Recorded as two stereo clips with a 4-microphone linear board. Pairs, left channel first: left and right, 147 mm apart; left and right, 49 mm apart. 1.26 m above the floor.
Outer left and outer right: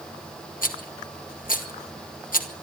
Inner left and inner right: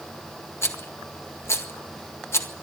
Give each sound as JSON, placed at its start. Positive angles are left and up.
{"t": 0.6, "sound": "a rattle", "side_deg": 70, "distance_m": 1.8}